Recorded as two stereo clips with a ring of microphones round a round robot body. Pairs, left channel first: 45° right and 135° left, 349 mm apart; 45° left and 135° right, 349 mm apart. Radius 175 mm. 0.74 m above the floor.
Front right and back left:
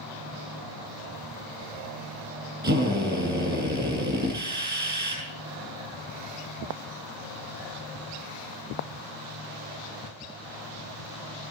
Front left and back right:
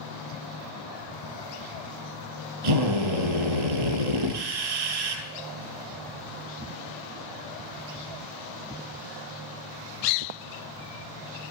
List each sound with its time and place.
2.6 s a drill: 160° right, 8.5 m